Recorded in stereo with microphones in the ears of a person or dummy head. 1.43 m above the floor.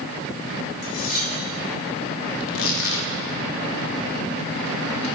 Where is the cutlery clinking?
45° left (ahead or behind), 5 m.